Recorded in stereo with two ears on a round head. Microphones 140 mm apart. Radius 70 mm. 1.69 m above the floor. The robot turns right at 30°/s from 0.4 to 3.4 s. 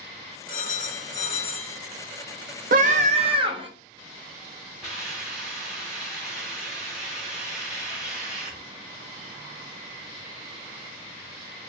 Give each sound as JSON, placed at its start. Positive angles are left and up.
{"t": 0.5, "sound": "a phone ringing", "azimuth_deg": 110, "distance_m": 2.0}
{"t": 2.7, "sound": "a scream", "side_deg": -55, "distance_m": 0.7}
{"t": 4.8, "sound": "a hiss", "side_deg": -5, "distance_m": 2.5}